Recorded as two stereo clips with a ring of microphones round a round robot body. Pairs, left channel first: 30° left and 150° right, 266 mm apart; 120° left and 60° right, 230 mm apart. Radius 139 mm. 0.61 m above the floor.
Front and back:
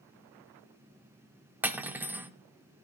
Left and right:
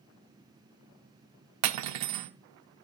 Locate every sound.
1.6 s cutlery clinking: 65° right, 0.6 m